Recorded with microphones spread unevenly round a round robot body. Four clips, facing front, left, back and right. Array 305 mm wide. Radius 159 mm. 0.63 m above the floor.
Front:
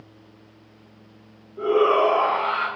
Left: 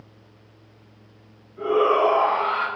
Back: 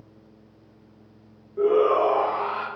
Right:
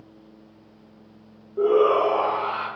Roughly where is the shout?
Behind right.